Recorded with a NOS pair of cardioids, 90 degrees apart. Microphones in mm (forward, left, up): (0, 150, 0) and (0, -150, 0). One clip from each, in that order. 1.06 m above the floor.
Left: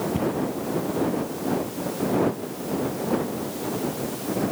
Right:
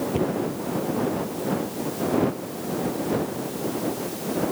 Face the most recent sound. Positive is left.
turn(degrees=-20)